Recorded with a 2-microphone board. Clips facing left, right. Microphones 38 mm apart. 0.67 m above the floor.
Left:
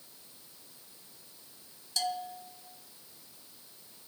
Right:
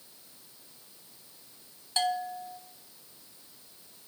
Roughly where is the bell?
Right.